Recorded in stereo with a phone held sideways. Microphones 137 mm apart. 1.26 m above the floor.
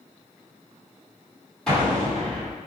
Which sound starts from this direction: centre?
An explosion, at 1.7 s.